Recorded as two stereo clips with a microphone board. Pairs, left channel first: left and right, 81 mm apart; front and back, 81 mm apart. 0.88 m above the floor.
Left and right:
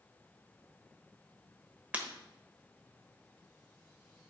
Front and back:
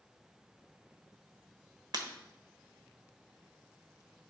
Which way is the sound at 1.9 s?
160° right.